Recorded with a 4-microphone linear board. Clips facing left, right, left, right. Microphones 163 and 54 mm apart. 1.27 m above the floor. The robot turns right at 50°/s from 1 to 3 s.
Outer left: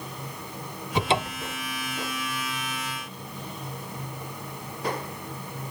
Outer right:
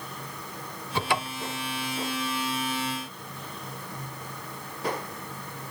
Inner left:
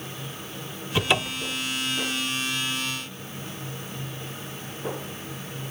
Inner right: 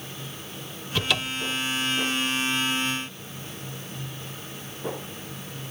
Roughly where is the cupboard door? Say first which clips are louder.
Outer left 3 dB, inner left 2 dB; centre.